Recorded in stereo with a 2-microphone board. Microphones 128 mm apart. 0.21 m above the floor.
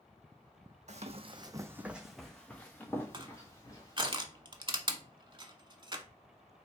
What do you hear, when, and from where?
0.9 s running footsteps: 65° right (ahead or behind), 0.6 m; by 4.1 s 30° left (ahead or behind), 1.9 m
3.1 s crushing: 40° right (ahead or behind), 0.6 m